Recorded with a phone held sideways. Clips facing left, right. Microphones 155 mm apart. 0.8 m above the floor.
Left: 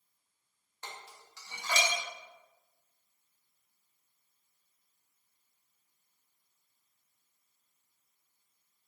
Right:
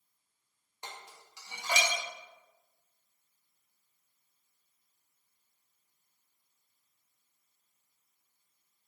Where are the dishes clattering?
15° right (ahead or behind), 0.7 m.